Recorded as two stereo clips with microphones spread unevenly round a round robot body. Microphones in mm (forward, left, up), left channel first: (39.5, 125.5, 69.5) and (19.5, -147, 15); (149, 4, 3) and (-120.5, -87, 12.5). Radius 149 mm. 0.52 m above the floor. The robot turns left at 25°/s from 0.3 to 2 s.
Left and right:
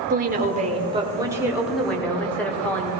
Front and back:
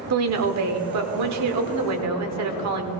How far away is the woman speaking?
About 1.4 m.